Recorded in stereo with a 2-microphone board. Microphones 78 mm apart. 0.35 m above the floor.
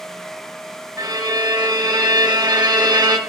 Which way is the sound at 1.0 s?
55° right (ahead or behind).